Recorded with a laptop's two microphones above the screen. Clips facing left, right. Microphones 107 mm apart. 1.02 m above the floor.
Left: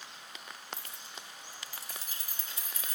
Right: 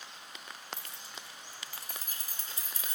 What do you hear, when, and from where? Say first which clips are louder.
0.7 s keys jangling: even; 60° right (ahead or behind), 1.2 m; by 3.0 s 30° right (ahead or behind), 2.5 m